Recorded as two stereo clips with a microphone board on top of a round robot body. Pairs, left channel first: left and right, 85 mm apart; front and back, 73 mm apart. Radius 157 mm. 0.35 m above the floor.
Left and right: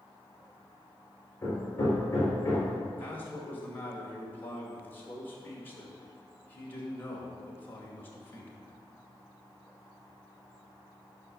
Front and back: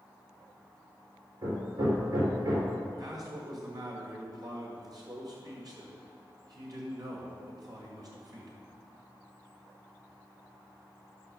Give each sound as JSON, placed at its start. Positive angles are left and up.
{"t": 1.4, "sound": "hammering", "azimuth_deg": 150, "distance_m": 4.5}
{"t": 3.0, "sound": "a man speaking", "azimuth_deg": 155, "distance_m": 2.0}